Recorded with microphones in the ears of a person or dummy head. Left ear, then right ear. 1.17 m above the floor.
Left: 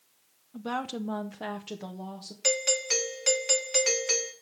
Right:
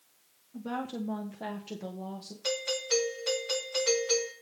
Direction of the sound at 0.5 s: 25° left (ahead or behind).